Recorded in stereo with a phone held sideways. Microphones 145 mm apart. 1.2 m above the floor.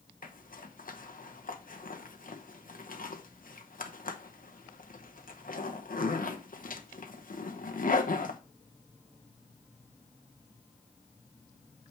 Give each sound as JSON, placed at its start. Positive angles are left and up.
{"t": 0.2, "sound": "a zipper", "side_deg": 75, "distance_m": 1.0}